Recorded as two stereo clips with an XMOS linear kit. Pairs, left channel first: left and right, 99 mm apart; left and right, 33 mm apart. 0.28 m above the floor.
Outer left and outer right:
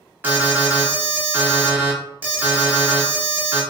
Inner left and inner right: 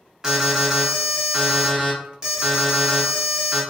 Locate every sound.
0.2 s an alarm: 20° right (ahead or behind), 1.1 m